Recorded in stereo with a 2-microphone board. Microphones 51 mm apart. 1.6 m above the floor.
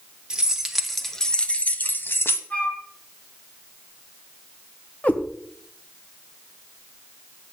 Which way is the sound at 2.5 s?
30° left (ahead or behind).